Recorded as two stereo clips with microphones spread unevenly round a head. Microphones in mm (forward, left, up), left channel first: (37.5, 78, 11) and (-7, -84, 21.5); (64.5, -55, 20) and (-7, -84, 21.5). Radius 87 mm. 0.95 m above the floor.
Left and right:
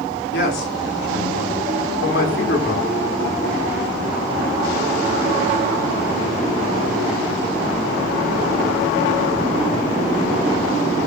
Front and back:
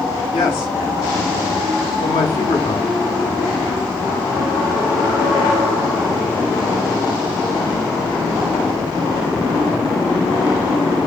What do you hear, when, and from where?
0.3 s a man speaking: 55° left, 2.5 m